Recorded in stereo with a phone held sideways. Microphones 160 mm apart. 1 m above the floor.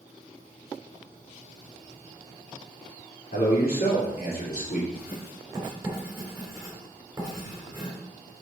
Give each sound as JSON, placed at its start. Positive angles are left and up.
{"t": 3.3, "sound": "a man speaking", "side_deg": 75, "distance_m": 2.5}
{"t": 5.0, "sound": "writing", "side_deg": -20, "distance_m": 3.5}